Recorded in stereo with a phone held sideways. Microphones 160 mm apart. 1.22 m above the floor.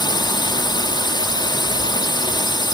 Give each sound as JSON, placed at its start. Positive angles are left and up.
{"t": 0.0, "sound": "a drone", "side_deg": 30}